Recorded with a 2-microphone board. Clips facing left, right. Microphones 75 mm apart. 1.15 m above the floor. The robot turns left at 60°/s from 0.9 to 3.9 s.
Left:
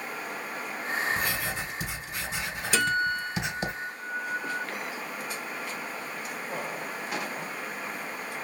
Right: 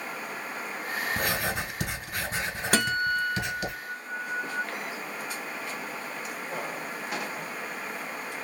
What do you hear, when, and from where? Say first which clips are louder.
1.2 s writing: right 2 dB; 65° right, 2.5 m; by 3.7 s 140° left, 2.5 m
2.7 s a guitar: even; 120° right, 1.0 m; by 4.6 s 170° left, 1.0 m